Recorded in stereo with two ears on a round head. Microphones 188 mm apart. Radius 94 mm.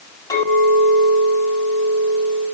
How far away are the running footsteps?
No running footsteps in this recording.